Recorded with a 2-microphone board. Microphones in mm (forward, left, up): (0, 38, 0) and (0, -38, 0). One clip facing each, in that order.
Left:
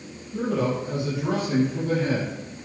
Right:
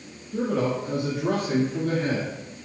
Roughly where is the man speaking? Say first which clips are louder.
Even; right.